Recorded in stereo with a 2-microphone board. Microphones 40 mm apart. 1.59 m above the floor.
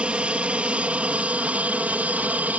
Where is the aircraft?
30° right (ahead or behind); by 2.6 s 40° right (ahead or behind).